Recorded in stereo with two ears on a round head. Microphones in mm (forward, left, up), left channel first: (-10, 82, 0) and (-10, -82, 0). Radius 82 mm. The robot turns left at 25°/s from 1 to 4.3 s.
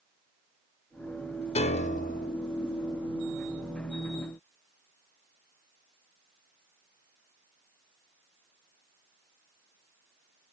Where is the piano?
35° left (ahead or behind), 0.7 m; by 2.3 s 55° left (ahead or behind), 0.7 m.